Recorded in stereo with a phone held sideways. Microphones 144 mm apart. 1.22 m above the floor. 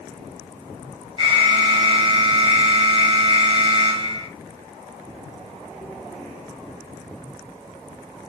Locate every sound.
1.2 s an alarm: 35° right (ahead or behind), 2.0 m